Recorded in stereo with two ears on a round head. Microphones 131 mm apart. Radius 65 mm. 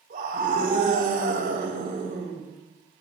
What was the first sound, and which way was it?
A scream, 65° right (ahead or behind).